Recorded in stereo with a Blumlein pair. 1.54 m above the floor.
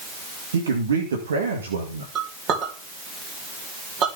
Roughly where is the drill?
No drill in this recording.